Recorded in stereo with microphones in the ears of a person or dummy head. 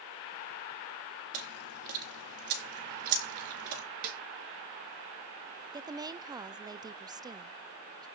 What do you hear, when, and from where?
1.3 s chewing: 45° right (ahead or behind), 3.5 m
4.0 s a snare drum: 50° right (ahead or behind), 2.5 m
5.7 s a woman speaking: 15° right (ahead or behind), 0.5 m